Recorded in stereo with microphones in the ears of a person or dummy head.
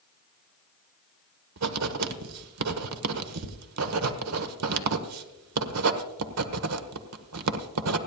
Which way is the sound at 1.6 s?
85° right.